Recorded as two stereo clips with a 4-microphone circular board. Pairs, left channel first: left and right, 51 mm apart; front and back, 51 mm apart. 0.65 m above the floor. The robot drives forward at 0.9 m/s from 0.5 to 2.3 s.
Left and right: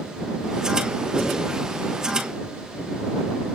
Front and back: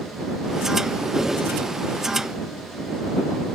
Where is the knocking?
35° right, 8 m; by 1.5 s 40° right, 8 m.